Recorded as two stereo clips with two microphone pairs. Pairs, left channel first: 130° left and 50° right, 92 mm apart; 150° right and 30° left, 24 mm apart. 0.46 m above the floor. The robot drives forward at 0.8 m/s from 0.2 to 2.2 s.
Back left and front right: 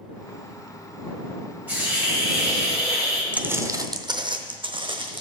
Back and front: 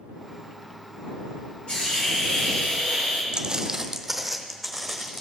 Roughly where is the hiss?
Behind right.